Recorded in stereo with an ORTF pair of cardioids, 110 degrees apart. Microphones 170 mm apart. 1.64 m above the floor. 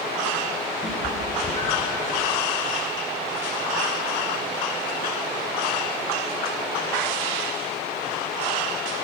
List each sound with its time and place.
0.8 s a cat meowing: 20° left, 3.5 m; by 2.0 s 25° left, 5 m